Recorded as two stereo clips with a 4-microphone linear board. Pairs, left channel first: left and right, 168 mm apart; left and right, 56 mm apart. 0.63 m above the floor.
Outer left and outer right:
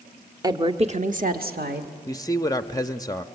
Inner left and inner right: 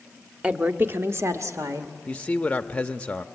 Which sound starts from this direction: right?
A woman speaking, at 0.4 s.